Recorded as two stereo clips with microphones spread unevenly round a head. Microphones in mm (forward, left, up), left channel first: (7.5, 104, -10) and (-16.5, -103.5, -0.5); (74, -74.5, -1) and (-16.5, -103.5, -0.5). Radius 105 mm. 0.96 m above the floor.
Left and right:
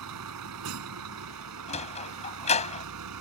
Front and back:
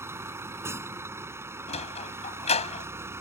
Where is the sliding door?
20° left.